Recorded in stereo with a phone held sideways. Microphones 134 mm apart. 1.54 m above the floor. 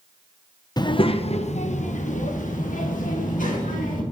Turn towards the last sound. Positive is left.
turn(degrees=80)